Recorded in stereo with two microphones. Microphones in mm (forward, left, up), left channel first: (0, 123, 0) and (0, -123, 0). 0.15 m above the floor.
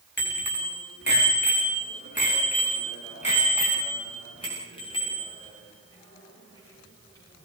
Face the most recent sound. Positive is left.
turn(degrees=10)  # may be behind; listen again after turning